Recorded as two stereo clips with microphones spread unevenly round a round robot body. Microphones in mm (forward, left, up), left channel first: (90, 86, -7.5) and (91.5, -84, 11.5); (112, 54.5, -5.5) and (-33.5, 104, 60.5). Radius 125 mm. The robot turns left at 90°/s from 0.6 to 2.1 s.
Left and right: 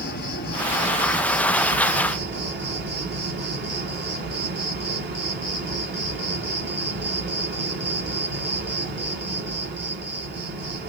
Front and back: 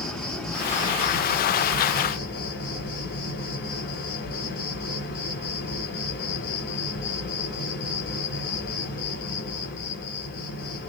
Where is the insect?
70° left, 1.2 m; by 10.9 s 65° right, 1.2 m.